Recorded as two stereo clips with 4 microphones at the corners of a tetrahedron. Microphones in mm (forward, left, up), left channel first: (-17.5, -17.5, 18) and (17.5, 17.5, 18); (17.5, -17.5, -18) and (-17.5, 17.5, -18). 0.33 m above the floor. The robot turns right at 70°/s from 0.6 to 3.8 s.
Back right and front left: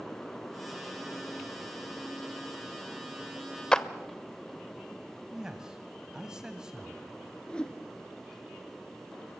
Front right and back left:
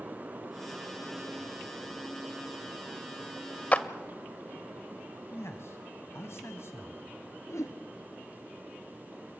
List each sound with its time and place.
3.7 s a clap: 75° right, 0.7 m; by 3.9 s 70° right, 0.7 m
5.3 s a man speaking: 30° right, 1.9 m
7.5 s a whoosh: 65° right, 1.5 m